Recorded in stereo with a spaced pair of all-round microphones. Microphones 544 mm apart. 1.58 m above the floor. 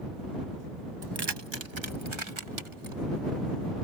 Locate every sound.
1.0 s keys jangling: 40° right (ahead or behind); by 3.0 s 65° right (ahead or behind)